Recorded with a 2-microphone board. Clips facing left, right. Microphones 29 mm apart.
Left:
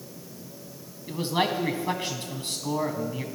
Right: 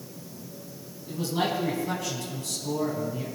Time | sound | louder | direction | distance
1.1 | a man speaking | left 2 dB | 45° left (ahead or behind) | 1.8 m